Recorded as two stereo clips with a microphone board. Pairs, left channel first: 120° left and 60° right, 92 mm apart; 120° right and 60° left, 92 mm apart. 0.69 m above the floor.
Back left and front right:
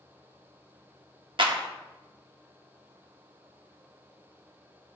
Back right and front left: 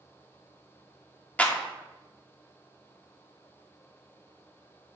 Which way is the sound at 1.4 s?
45° right.